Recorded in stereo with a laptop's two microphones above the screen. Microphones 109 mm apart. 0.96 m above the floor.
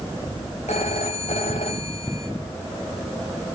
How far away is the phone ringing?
About 3 m.